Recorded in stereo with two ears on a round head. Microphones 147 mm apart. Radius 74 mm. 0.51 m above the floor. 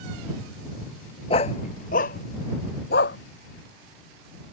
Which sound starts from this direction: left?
A dog barking, at 1.3 s.